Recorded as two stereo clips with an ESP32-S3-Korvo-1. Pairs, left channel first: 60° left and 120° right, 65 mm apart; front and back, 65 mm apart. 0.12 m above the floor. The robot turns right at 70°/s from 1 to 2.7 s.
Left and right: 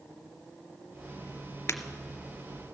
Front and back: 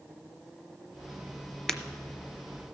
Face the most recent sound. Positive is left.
turn(degrees=155)